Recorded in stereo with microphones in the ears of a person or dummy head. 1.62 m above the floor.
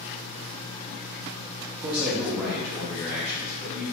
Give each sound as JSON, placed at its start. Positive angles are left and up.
{"t": 1.8, "sound": "a man speaking", "side_deg": -25, "distance_m": 0.5}